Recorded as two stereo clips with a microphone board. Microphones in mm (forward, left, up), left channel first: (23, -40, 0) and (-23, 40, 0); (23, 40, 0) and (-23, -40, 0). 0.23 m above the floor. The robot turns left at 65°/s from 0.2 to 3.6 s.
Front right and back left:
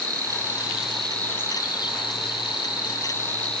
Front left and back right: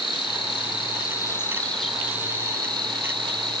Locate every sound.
0.0 s an insect: 80° left, 1.1 m; by 3.6 s 145° right, 1.1 m